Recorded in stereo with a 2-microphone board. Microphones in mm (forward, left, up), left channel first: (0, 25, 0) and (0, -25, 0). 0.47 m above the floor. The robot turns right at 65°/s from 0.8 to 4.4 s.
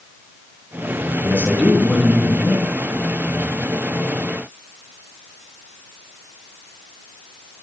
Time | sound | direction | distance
1.2 | a man speaking | 35° right | 5.5 m